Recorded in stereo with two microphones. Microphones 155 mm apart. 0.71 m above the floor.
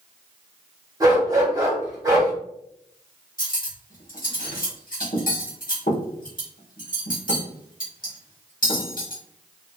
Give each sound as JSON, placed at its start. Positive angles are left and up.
{"t": 1.0, "sound": "a dog barking", "side_deg": -25, "distance_m": 1.2}
{"t": 3.4, "sound": "cutlery clinking", "side_deg": 65, "distance_m": 1.0}